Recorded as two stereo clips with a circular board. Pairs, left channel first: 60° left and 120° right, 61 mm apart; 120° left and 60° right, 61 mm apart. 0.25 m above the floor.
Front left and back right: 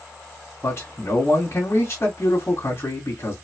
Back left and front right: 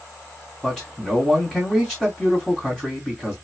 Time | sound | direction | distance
0.6 | a man speaking | 40° left | 2.5 m